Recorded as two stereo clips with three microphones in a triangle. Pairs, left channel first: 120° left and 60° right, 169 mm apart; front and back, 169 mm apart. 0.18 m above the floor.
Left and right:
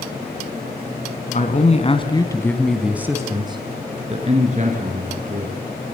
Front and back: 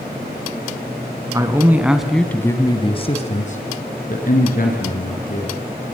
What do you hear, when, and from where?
1.3 s a man speaking: 115° left, 2.5 m; by 5.6 s 25° right, 5 m